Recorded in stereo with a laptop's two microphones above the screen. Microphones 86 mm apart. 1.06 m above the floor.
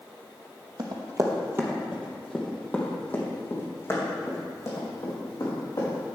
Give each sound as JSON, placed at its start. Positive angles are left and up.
{"t": 0.8, "sound": "running footsteps", "side_deg": -50, "distance_m": 2.0}